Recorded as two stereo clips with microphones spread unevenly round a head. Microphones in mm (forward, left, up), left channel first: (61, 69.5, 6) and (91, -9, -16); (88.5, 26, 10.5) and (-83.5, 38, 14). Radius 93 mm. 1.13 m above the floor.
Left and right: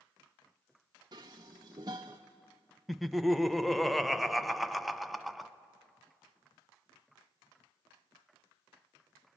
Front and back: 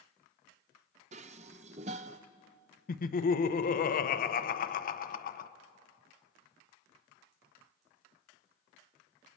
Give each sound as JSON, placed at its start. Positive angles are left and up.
{"t": 1.1, "sound": "dishes clattering", "azimuth_deg": -135, "distance_m": 0.5}
{"t": 2.9, "sound": "laughter", "azimuth_deg": 10, "distance_m": 0.9}